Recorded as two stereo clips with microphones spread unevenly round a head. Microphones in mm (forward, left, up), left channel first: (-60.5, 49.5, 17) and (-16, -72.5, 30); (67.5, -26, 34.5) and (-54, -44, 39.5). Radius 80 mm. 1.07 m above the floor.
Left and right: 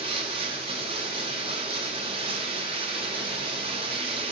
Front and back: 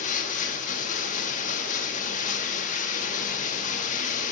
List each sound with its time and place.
0.0 s running water: 15° right, 0.9 m